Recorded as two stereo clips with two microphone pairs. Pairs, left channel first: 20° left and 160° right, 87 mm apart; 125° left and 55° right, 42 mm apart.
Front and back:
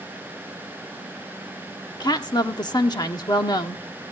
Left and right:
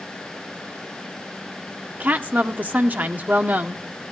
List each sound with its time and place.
2.0 s a woman speaking: 15° right, 1.2 m